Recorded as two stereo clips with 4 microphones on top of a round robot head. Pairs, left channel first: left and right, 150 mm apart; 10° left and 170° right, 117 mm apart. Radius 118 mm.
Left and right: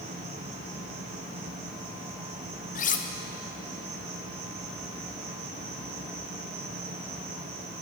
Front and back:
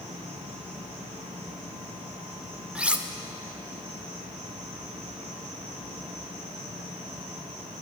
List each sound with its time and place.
0.0 s an insect: 100° right, 5.5 m
2.8 s cutlery clinking: 110° left, 1.0 m